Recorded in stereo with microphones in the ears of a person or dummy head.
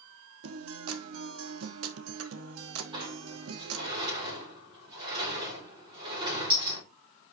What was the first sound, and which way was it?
A guitar, 85° right.